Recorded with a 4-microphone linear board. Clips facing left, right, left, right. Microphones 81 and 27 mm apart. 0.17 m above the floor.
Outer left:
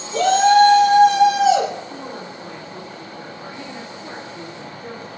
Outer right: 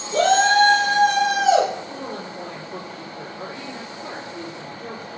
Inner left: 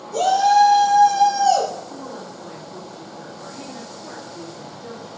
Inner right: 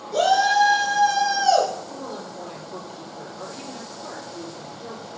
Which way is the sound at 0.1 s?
50° right (ahead or behind).